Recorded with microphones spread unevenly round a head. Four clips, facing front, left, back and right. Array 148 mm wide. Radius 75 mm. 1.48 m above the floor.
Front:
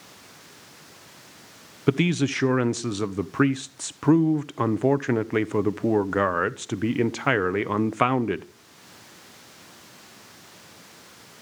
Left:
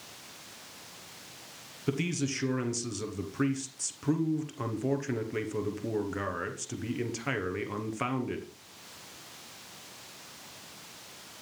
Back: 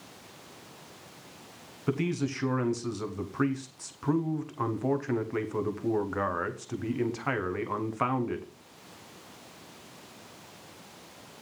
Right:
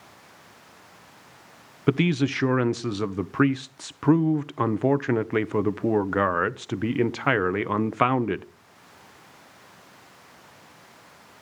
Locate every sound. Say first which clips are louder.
1.9 s a man speaking: right 9 dB, front 7 dB; 35° right, 0.9 m